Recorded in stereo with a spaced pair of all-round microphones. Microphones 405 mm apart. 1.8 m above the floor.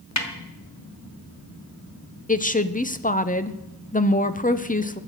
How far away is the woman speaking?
About 0.7 m.